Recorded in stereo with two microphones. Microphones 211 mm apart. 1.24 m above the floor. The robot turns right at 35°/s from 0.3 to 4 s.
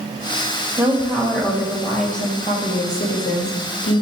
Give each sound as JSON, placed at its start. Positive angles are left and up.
{"t": 0.8, "sound": "a woman speaking", "azimuth_deg": -10, "distance_m": 1.9}